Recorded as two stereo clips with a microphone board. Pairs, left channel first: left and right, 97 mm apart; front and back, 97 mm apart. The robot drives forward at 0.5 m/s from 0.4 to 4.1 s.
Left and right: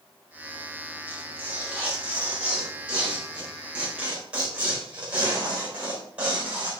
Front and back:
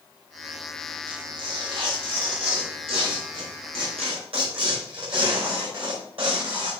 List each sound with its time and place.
1.1 s tearing paper: 160° right, 3 m; by 6.7 s 165° right, 4 m